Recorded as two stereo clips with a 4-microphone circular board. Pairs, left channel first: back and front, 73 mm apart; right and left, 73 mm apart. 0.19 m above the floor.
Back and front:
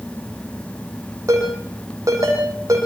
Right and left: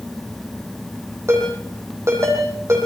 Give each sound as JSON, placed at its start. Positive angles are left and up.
{"t": 1.3, "sound": "a ringtone", "azimuth_deg": 40, "distance_m": 6.5}